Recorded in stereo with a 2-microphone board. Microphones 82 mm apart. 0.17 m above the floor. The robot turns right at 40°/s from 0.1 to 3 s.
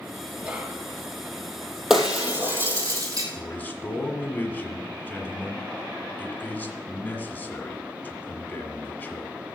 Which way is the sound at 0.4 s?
15° right (ahead or behind).